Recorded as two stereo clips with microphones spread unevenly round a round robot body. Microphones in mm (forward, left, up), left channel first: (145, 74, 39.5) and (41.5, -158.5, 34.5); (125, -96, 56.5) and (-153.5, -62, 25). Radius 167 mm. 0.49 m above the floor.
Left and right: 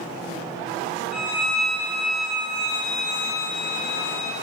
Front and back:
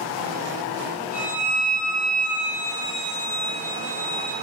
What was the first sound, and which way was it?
A violin, 60° left.